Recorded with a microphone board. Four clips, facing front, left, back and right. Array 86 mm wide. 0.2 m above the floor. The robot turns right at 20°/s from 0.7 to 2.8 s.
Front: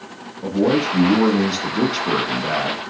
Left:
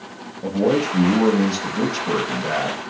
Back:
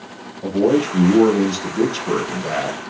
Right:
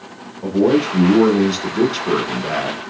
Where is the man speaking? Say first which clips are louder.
Right 4 dB, back 2 dB; 65° right, 1.7 m; by 2.8 s 25° right, 1.7 m.